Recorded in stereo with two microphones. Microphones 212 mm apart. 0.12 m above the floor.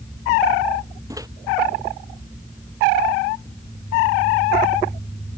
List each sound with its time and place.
1.1 s a microwave: 15° right (ahead or behind)